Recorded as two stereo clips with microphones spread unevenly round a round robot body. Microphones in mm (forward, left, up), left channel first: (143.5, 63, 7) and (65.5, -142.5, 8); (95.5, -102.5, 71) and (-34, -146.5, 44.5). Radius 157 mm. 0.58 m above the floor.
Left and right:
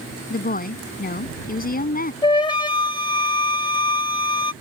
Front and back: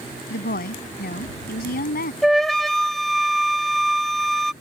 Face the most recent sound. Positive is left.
turn(degrees=125)